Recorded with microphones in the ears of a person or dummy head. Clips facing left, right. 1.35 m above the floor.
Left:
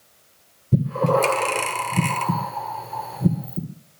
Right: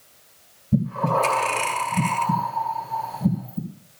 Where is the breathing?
65° left (ahead or behind), 1.8 m.